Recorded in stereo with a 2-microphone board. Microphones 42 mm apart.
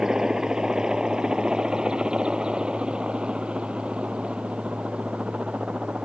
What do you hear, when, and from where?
0.0 s a helicopter: 15° right (ahead or behind); by 6.0 s 30° right (ahead or behind)